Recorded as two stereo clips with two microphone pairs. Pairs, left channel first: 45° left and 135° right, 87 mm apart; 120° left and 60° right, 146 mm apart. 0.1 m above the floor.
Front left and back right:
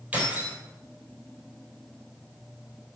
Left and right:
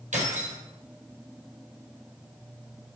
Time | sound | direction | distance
0.1 | keys jangling | 65° right | 2.5 m